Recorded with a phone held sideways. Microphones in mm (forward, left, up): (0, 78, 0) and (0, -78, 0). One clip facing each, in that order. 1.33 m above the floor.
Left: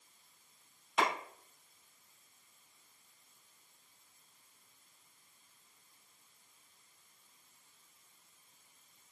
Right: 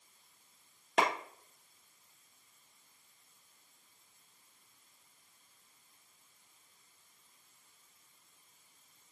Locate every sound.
1.0 s a clap: 70° right (ahead or behind), 1.0 m